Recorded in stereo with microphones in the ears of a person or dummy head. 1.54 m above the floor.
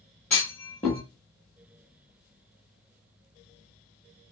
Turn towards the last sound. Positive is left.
turn(degrees=5)  # may be behind; listen again after turning